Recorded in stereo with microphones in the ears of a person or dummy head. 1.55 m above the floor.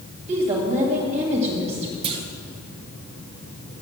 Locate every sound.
0.3 s a woman speaking: 35° right (ahead or behind), 2 m
2.0 s a clunk: 30° right (ahead or behind), 1.1 m